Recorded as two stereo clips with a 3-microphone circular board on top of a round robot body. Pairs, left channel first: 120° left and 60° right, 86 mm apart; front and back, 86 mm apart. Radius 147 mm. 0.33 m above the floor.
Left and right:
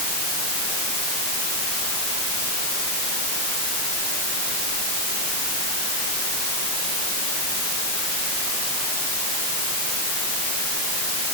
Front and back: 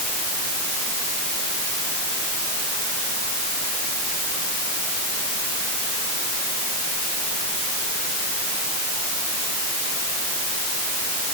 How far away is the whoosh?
I don't hear a whoosh.